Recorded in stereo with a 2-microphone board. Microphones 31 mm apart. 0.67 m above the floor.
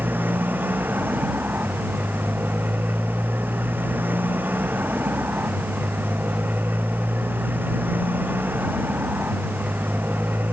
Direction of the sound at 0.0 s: 75° right (ahead or behind).